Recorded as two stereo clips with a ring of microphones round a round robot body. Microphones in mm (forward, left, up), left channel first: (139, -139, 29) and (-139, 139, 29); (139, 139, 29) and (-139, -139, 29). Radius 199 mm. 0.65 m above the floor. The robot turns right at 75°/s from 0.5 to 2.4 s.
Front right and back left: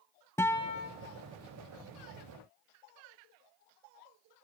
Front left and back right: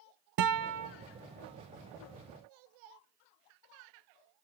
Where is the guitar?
125° right, 0.6 m; by 0.9 s 95° right, 0.6 m.